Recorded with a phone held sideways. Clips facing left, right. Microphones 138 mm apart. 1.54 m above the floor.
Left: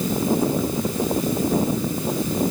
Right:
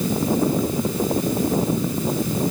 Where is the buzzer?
I don't hear a buzzer.